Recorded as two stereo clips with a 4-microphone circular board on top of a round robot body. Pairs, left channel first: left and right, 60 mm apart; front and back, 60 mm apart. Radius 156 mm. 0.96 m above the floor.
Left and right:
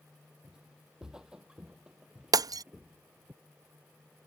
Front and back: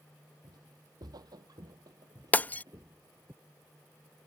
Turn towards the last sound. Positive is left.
turn(degrees=-65)